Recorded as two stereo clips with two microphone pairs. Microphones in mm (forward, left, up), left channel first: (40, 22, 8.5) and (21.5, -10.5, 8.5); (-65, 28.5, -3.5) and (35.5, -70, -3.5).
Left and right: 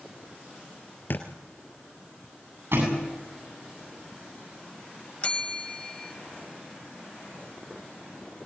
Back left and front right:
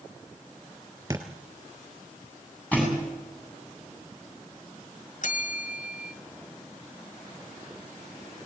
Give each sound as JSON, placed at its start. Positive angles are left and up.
{"t": 1.1, "sound": "a thud", "azimuth_deg": 25, "distance_m": 3.0}
{"t": 2.7, "sound": "a thud", "azimuth_deg": -145, "distance_m": 8.5}
{"t": 5.2, "sound": "a bell", "azimuth_deg": 115, "distance_m": 1.6}